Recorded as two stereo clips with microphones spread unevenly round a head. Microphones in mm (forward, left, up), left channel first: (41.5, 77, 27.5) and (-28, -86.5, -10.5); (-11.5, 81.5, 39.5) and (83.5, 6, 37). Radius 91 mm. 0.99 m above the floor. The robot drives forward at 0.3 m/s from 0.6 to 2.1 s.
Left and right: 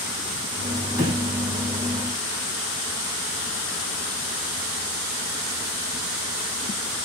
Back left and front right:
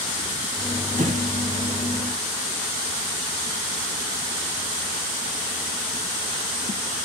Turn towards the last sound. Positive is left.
turn(degrees=-55)